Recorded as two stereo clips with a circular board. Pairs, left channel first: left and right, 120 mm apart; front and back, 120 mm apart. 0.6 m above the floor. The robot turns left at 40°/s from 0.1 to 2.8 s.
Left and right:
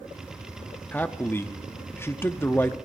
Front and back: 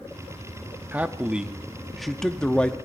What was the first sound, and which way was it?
A man speaking, 135° left.